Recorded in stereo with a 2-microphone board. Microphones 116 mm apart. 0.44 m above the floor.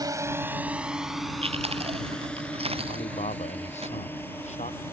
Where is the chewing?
55° right (ahead or behind).